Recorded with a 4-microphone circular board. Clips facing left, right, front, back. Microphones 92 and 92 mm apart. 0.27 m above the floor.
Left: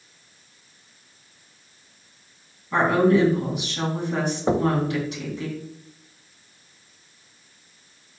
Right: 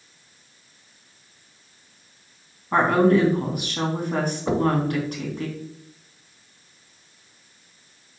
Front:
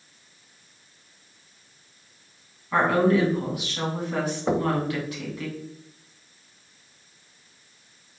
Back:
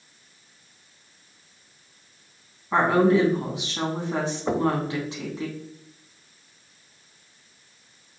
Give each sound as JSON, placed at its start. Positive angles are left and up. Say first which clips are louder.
{"t": 2.7, "sound": "a woman speaking", "louder": "right 1 dB, back 1 dB", "azimuth_deg": -120, "distance_m": 2.5}
{"t": 4.5, "sound": "knocking", "louder": "left 1 dB, back 1 dB", "azimuth_deg": 75, "distance_m": 0.8}